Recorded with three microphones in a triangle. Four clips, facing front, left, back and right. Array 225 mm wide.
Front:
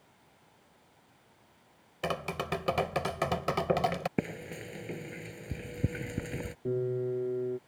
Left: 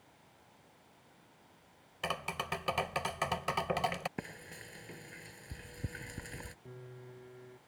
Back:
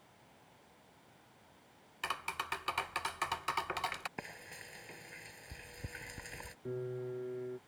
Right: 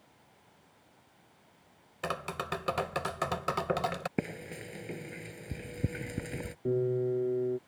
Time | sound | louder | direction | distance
2.0 | tapping | right 3 dB, front 7 dB | 10° right | ?
4.2 | frying | right 9 dB, front 13 dB | 35° right | ?
6.7 | a piano | right 22 dB, front 9 dB | 60° right | ?